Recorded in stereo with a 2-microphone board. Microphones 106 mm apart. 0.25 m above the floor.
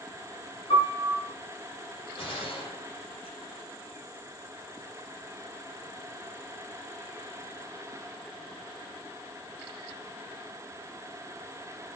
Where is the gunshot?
60° left (ahead or behind), 8 m.